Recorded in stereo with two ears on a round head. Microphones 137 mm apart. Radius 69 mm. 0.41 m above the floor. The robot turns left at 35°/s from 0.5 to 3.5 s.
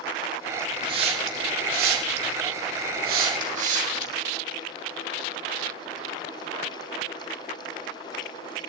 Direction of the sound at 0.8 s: 30° right (ahead or behind).